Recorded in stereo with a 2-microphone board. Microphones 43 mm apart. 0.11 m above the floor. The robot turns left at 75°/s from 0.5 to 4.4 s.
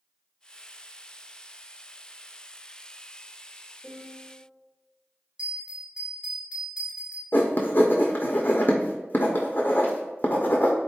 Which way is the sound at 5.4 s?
25° right (ahead or behind).